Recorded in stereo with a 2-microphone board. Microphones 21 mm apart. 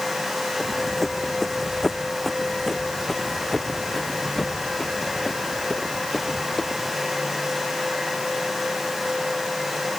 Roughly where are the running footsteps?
Centre.